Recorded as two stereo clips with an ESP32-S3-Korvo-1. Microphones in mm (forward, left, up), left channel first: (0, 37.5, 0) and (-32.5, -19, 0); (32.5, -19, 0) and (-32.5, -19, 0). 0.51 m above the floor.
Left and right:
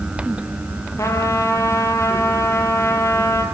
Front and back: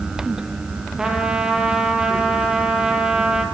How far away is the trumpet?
About 5 m.